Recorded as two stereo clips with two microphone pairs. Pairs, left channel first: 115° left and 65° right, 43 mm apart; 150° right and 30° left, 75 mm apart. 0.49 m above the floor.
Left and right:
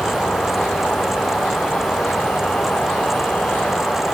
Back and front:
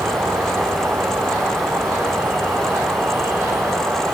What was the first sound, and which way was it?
An insect, 75° left.